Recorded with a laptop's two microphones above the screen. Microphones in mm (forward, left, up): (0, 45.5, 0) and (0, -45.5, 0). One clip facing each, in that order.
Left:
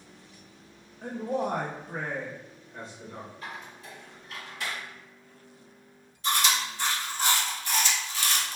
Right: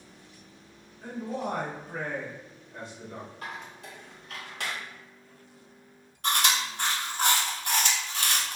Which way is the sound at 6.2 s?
55° right (ahead or behind).